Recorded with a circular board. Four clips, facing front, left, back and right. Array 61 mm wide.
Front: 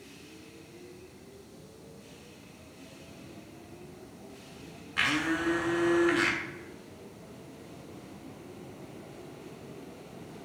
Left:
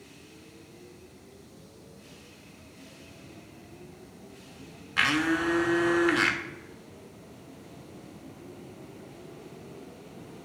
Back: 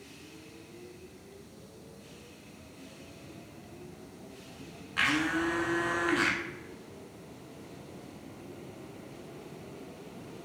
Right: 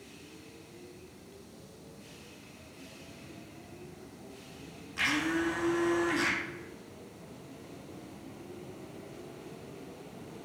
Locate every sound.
5.0 s a blender: 90° left, 0.7 m